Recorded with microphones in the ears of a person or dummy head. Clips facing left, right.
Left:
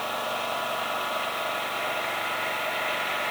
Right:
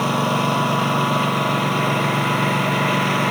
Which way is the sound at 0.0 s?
65° right (ahead or behind).